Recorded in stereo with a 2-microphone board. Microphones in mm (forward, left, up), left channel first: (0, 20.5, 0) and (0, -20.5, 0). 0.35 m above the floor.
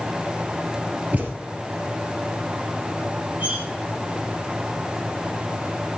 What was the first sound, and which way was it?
A thud, 40° right (ahead or behind).